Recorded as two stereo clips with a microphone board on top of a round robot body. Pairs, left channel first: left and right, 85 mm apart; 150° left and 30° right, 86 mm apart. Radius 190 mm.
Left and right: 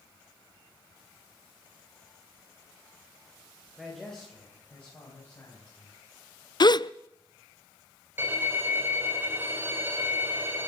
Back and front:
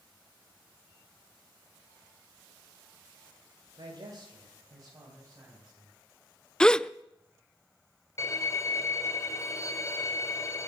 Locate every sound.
3.8 s a man speaking: straight ahead, 3 m; by 5.9 s 35° left, 5 m
6.6 s a gasp: 70° left, 0.6 m
8.2 s a violin: 155° right, 2.5 m